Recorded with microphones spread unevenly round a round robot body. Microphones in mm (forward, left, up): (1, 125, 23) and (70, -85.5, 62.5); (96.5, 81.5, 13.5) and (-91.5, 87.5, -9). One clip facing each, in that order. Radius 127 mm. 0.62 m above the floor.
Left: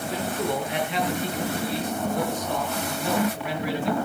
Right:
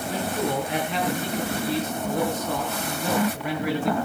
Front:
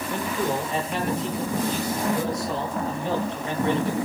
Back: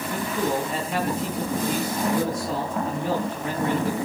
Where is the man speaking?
125° right, 9.5 m.